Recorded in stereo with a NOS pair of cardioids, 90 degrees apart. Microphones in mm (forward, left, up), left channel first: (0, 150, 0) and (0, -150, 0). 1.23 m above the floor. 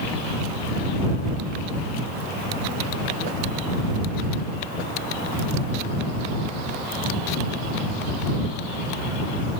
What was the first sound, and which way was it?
Only background noise.